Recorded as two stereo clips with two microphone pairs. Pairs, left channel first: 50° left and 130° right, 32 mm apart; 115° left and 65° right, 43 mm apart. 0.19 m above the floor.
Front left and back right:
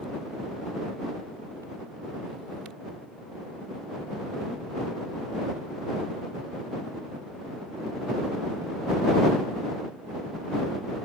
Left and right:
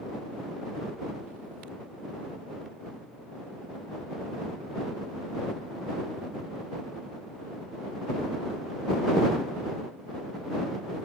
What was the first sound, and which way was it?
Only background noise.